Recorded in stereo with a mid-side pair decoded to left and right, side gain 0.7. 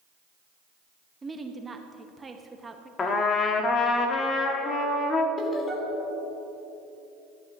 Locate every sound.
1.2 s a woman speaking: 20° right, 0.9 m
3.0 s a trumpet: 35° left, 1.3 m
5.4 s laughter: 35° left, 3 m